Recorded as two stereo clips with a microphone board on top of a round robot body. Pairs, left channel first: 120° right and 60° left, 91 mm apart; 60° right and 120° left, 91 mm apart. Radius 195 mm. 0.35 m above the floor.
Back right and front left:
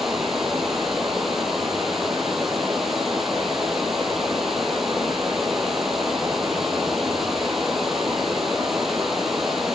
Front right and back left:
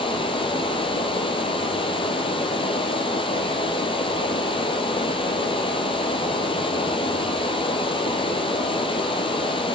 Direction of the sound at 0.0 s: 30° right.